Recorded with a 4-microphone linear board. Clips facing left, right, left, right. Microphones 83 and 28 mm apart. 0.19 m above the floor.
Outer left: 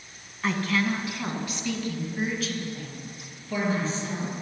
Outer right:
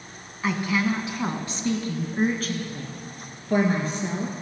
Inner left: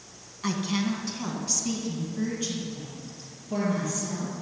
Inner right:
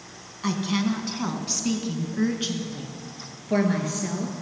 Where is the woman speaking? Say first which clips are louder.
Outer right 2 dB, inner right 3 dB; 5° right (ahead or behind), 1.2 m; by 4.3 s 55° right (ahead or behind), 3 m.